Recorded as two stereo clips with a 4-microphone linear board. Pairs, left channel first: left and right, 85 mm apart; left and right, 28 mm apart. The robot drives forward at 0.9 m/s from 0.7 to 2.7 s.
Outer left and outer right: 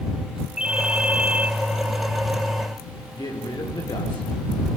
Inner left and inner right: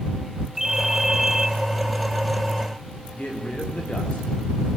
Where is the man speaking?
55° left (ahead or behind), 7 m.